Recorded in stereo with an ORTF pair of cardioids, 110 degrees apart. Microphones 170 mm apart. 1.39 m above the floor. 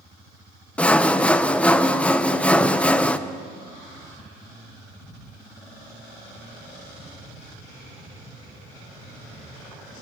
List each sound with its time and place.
0.8 s sawing: 5° left, 0.9 m